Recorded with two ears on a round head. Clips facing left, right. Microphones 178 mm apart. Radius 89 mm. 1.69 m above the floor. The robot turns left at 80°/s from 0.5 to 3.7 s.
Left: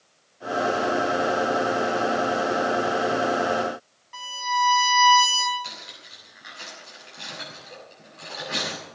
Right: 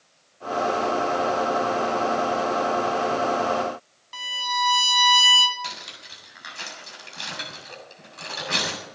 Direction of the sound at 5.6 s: 70° right (ahead or behind).